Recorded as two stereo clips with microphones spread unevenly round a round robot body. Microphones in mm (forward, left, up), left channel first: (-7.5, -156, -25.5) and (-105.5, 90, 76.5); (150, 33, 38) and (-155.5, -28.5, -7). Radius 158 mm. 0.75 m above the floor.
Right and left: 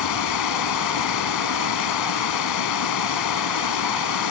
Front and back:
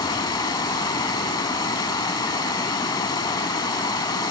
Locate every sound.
0.0 s running water: 65° right